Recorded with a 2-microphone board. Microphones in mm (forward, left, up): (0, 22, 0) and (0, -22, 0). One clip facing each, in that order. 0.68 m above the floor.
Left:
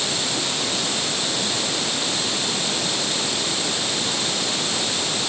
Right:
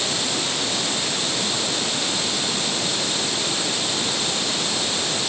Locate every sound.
Only background noise.